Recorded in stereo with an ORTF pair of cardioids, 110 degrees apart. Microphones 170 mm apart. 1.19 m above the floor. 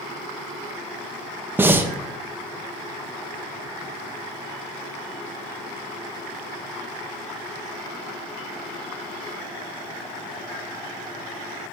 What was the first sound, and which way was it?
Breathing, 15° right.